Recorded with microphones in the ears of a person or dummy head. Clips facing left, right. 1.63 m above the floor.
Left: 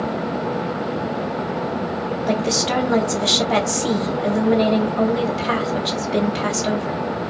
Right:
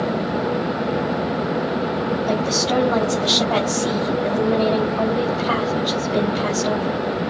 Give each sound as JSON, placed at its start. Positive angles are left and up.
{"t": 2.3, "sound": "a woman speaking", "side_deg": 25, "distance_m": 5.5}